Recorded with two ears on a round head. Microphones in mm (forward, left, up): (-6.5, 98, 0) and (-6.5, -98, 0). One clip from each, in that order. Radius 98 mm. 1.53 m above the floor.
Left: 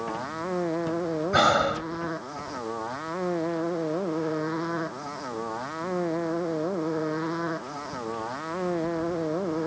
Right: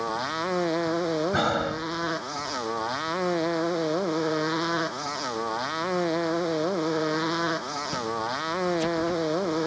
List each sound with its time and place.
0.0 s a motorcycle: 80° right
1.3 s breathing: 30° left (ahead or behind)